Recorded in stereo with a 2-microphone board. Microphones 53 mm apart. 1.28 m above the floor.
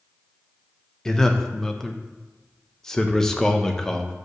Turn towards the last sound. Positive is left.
turn(degrees=10)  # may be behind; listen again after turning